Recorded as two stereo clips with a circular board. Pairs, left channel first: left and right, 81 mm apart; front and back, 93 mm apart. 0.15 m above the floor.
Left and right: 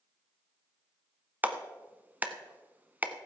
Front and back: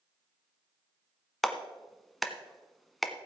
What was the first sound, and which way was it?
A clap, 90° right.